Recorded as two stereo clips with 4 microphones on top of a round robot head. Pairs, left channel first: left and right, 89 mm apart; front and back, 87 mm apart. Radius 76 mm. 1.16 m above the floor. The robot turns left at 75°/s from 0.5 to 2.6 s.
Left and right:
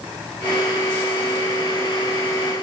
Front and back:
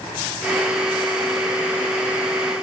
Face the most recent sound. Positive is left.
No sound to turn to.